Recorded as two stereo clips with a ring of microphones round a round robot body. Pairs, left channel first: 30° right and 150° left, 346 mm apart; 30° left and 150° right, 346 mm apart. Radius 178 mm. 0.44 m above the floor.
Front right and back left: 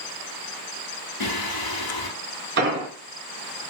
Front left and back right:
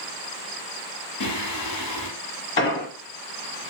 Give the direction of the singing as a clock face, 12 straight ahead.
12 o'clock.